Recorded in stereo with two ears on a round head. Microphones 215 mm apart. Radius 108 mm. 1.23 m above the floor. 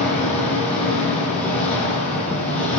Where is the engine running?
5° left (ahead or behind), 10 m.